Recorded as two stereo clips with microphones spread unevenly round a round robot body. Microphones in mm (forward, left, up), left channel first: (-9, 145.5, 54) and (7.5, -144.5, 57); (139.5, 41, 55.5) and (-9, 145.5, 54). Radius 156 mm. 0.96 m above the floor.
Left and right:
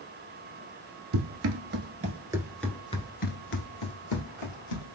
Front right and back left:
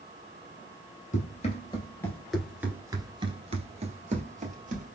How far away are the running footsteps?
About 1.3 m.